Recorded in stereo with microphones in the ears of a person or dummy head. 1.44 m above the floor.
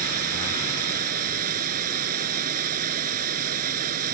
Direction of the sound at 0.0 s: 55° right (ahead or behind).